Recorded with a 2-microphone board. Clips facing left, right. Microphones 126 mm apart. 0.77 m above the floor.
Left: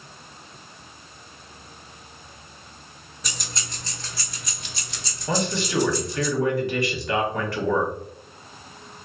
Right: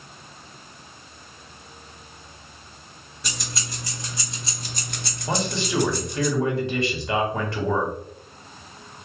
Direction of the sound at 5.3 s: 25° right (ahead or behind).